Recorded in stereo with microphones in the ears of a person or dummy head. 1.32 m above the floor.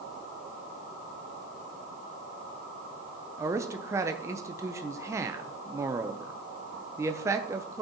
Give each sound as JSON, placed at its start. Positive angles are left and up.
{"t": 3.4, "sound": "a man speaking", "side_deg": -20, "distance_m": 0.6}